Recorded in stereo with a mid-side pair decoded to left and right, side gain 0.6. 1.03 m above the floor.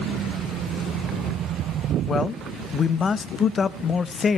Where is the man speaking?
30° left, 0.8 m.